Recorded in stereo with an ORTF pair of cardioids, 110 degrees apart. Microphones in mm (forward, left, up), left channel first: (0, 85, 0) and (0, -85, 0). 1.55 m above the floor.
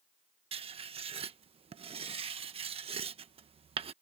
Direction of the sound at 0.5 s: 35° right.